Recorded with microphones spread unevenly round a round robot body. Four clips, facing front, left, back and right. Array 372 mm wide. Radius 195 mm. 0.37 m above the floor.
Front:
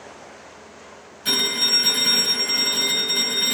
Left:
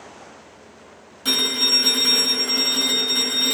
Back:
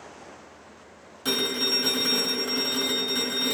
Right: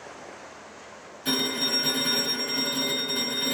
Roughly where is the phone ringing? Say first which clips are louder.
Left 1 dB, even; behind left.